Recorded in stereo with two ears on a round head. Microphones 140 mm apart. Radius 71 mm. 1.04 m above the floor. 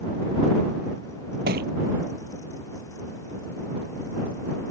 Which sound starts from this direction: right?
A thud, at 1.5 s.